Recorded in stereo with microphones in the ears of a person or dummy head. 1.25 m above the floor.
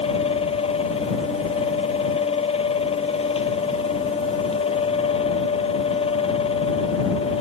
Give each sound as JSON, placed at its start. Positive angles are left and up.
{"t": 0.0, "sound": "a fan", "side_deg": 35}